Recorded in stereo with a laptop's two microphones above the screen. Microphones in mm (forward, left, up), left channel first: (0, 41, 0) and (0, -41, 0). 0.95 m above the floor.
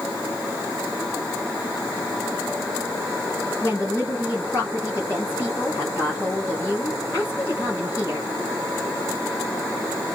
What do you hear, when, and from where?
3.6 s a woman speaking: 40° left (ahead or behind), 1.9 m